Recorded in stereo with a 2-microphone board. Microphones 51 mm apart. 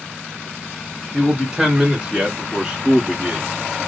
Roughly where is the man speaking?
Centre.